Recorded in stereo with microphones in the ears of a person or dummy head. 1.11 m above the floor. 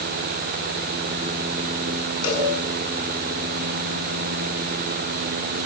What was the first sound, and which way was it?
A cowbell, 75° left (ahead or behind).